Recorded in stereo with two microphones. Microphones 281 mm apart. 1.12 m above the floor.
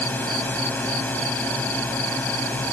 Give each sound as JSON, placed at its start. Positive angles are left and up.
{"t": 0.0, "sound": "a drone", "side_deg": 5}